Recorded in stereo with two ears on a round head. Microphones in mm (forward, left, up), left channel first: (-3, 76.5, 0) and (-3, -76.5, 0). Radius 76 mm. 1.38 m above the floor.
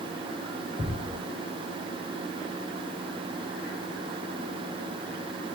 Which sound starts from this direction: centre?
A thud, at 0.8 s.